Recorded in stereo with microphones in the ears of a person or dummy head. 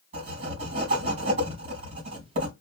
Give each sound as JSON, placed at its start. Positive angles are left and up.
{"t": 0.1, "sound": "writing", "side_deg": -40, "distance_m": 3.0}